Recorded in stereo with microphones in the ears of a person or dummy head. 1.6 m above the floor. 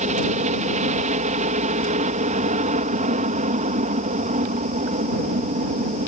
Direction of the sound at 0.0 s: 35° right (ahead or behind).